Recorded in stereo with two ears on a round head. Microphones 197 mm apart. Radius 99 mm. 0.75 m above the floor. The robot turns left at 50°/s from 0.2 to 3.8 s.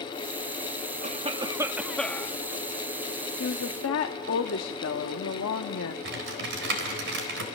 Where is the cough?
135° right, 1.3 m; by 2.4 s 160° left, 1.3 m.